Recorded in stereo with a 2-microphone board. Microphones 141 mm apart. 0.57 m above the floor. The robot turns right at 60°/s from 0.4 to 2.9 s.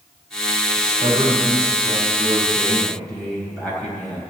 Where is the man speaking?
125° right, 3.5 m; by 4.2 s 5° left, 3.5 m.